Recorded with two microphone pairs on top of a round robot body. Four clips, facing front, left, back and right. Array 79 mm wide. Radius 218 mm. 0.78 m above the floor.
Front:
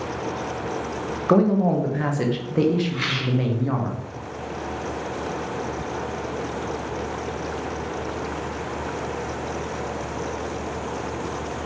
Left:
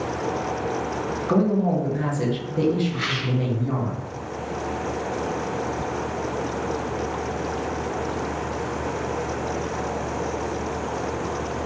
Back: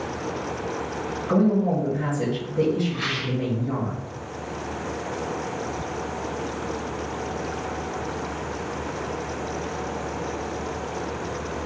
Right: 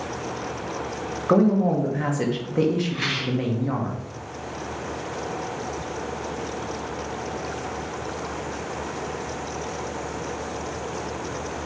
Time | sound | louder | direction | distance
1.3 | a man speaking | right 3 dB, front 3 dB | 30° right | 0.9 m
2.9 | a rattle | even, front 2 dB | 20° right | 1.8 m